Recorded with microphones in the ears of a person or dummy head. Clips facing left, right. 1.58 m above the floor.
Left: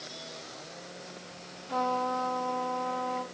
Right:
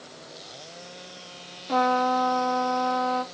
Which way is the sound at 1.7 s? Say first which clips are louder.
Right 7 dB; 65° right (ahead or behind).